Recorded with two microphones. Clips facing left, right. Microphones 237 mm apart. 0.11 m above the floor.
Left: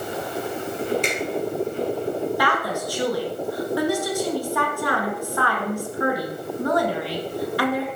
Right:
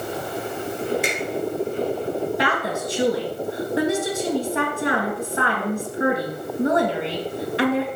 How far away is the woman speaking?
About 1.8 m.